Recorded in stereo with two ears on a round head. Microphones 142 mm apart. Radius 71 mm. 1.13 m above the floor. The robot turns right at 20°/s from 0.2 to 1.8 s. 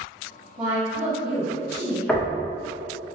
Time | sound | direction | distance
0.6 | a woman speaking | 25° right (ahead or behind) | 1.7 m
2.1 | knocking | 5° left (ahead or behind) | 0.6 m